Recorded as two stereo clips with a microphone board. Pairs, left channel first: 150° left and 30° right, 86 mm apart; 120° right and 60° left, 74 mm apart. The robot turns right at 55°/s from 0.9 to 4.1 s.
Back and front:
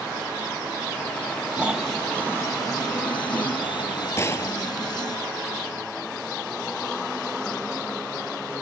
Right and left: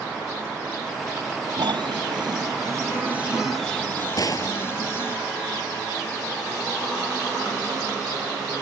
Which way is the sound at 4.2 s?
155° right.